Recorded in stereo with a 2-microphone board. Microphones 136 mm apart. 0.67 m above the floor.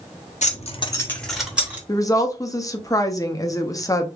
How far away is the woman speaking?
About 0.6 m.